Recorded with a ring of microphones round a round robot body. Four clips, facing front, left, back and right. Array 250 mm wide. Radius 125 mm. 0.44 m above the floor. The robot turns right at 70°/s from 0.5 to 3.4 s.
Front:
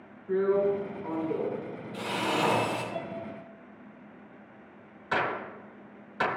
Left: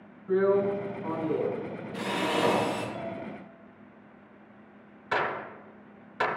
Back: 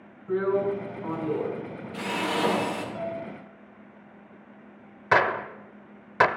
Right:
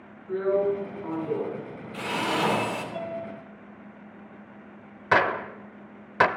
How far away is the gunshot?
About 0.7 m.